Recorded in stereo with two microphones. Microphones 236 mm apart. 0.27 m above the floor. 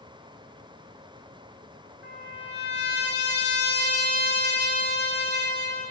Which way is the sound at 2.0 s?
45° left (ahead or behind).